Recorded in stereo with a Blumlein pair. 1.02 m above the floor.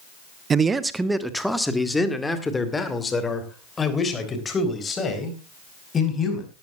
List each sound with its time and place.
0.5 s a man speaking: 20° right, 1.0 m; by 6.5 s 20° left, 5.5 m